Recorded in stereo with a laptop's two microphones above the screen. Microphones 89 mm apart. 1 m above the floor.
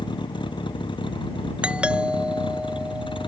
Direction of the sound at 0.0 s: 60° left (ahead or behind).